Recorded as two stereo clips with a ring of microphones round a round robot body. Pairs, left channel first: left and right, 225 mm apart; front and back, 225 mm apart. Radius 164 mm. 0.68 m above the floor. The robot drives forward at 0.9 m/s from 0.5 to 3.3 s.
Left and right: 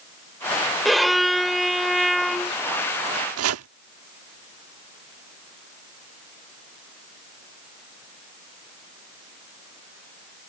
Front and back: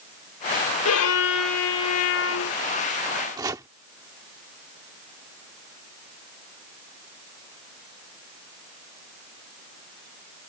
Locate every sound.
0.8 s a violin: straight ahead
3.4 s chopping: 105° right